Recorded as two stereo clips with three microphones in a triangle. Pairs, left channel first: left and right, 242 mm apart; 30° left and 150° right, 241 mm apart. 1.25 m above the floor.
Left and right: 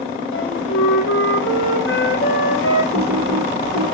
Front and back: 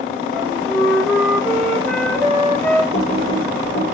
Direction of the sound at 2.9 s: 45° left.